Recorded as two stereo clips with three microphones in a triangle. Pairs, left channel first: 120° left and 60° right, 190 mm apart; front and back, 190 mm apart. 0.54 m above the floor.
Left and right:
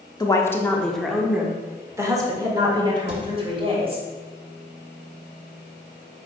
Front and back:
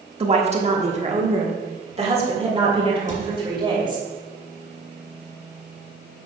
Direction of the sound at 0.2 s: 170° left.